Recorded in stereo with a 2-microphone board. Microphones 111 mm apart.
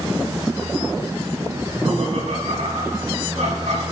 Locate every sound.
1.6 s laughter: 80° right, 4.5 m